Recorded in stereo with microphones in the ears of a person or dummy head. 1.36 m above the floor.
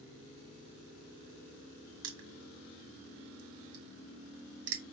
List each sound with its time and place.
2.0 s crushing: 70° right (ahead or behind), 1.2 m